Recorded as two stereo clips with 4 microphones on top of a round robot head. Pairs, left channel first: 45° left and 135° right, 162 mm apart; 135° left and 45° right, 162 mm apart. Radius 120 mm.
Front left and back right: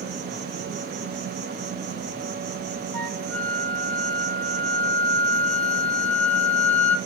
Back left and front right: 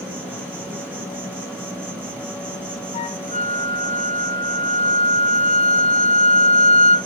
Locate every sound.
0.0 s an insect: 120° right, 5 m
2.9 s a flute: 120° left, 1.2 m